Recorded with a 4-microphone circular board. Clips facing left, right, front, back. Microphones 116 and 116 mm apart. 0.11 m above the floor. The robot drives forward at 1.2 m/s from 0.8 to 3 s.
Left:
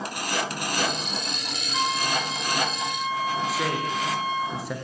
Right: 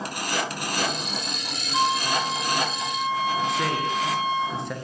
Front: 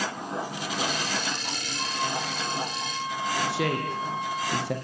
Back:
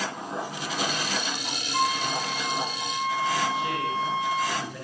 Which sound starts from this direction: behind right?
A flute, at 1.7 s.